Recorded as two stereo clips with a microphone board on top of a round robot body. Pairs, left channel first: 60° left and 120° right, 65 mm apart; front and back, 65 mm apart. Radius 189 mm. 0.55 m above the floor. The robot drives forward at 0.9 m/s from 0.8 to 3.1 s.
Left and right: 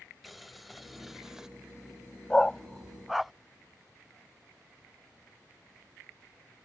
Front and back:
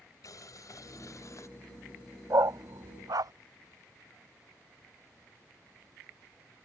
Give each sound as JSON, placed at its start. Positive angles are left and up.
{"t": 0.2, "sound": "boiling", "azimuth_deg": -30}
{"t": 2.3, "sound": "a dog barking", "azimuth_deg": 140}